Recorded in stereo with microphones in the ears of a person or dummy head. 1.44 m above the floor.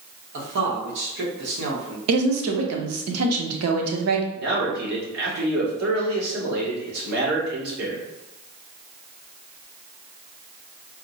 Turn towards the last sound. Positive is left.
turn(degrees=-60)  # may be behind; listen again after turning